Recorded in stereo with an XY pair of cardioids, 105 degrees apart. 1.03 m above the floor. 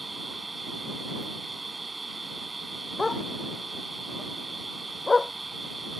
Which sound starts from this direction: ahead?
A dog barking, at 3.0 s.